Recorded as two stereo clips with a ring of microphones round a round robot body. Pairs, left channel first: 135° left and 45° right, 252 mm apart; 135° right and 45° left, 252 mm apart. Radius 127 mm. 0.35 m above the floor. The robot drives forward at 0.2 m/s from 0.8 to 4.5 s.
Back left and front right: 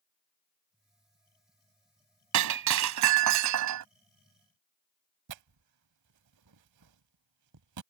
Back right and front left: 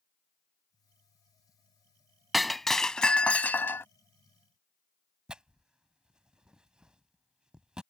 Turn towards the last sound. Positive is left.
turn(degrees=-40)